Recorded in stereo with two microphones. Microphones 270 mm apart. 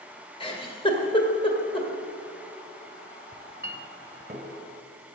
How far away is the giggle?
About 1.6 m.